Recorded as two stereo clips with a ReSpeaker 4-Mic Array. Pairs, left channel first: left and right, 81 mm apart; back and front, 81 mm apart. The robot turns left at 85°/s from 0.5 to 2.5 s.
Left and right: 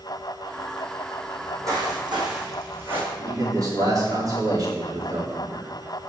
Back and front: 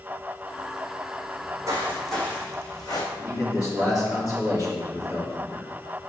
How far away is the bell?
I don't hear a bell.